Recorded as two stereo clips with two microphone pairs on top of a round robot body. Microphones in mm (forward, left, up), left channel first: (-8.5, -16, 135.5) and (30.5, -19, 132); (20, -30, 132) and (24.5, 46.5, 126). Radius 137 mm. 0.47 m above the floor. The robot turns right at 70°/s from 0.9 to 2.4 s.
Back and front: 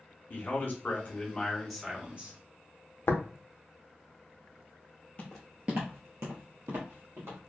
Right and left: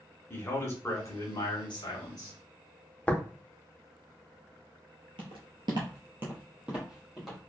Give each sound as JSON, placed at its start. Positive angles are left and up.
{"t": 0.3, "sound": "a man speaking", "azimuth_deg": -145, "distance_m": 1.6}
{"t": 3.1, "sound": "tapping", "azimuth_deg": -170, "distance_m": 0.7}
{"t": 5.2, "sound": "footsteps", "azimuth_deg": 115, "distance_m": 0.6}